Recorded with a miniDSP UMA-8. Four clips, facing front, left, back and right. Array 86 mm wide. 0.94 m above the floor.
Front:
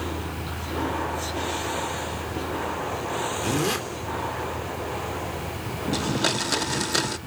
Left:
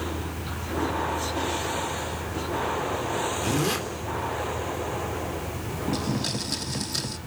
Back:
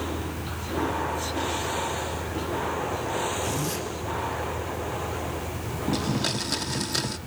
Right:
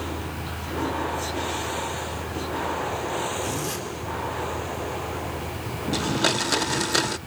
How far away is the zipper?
About 3 m.